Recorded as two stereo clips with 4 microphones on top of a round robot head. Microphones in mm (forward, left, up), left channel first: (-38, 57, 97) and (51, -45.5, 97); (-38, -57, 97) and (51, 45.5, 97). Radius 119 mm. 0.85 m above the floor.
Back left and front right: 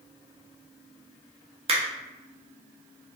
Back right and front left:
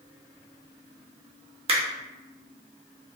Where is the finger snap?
Straight ahead, 0.6 m.